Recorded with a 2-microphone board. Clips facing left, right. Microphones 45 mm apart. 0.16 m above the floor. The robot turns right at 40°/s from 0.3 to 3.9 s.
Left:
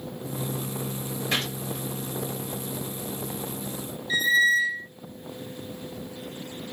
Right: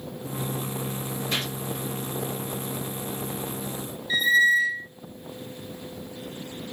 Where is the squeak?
10° right (ahead or behind), 0.6 m.